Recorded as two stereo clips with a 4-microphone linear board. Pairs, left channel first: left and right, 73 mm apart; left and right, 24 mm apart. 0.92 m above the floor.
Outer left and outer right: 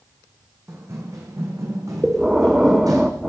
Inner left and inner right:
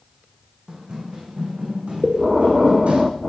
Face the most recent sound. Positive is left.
turn(degrees=-5)  # may be behind; listen again after turning